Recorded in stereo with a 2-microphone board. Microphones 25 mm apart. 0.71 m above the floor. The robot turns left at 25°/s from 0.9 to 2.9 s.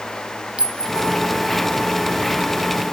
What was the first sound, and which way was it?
A clink, 55° right (ahead or behind).